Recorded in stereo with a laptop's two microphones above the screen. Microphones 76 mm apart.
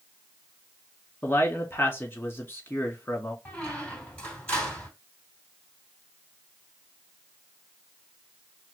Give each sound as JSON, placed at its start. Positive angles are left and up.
{"t": 1.2, "sound": "a man speaking", "side_deg": 25, "distance_m": 2.0}
{"t": 3.5, "sound": "a squeak", "side_deg": 10, "distance_m": 3.0}